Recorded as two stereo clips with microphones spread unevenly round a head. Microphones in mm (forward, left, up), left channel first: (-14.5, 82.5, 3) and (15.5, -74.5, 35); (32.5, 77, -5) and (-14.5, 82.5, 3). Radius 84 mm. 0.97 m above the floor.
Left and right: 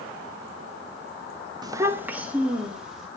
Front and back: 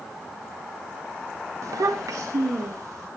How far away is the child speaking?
About 0.7 m.